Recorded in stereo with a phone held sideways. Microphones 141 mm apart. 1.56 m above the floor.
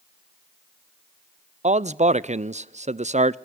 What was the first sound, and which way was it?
A man speaking, 55° right (ahead or behind).